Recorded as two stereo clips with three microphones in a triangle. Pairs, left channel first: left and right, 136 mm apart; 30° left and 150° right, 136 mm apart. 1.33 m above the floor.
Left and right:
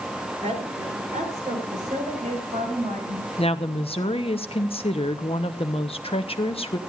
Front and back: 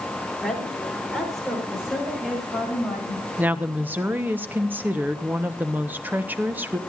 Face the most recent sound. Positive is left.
turn(degrees=135)